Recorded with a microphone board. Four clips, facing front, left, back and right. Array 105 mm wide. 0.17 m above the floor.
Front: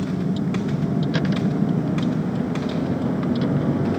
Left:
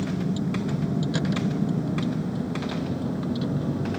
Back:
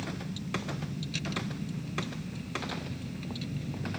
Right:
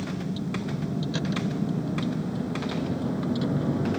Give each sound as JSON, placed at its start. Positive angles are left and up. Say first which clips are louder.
{"t": 0.0, "sound": "a vehicle", "louder": "left 4 dB, front 14 dB", "azimuth_deg": 15}